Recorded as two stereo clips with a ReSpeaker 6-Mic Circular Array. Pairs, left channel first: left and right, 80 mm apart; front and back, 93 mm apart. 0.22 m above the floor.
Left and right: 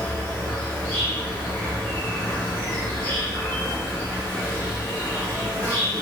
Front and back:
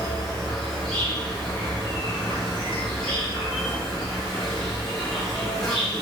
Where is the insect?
80° left, 1.5 m.